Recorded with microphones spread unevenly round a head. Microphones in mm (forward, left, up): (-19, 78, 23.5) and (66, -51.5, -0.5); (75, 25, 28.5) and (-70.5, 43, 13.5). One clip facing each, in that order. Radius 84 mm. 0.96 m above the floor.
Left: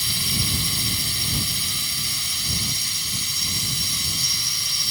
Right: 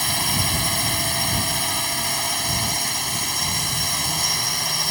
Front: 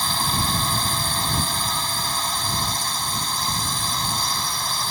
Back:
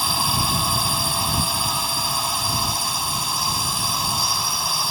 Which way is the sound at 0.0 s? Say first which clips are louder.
Right 5 dB, back 1 dB; 105° right.